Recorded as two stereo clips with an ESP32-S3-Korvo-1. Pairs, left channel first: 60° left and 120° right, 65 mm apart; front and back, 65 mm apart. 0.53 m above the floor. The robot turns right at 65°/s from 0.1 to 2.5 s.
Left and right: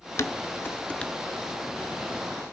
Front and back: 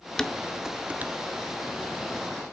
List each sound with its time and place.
0.2 s dishes clattering: 75° left, 0.6 m; by 1.1 s 135° left, 0.6 m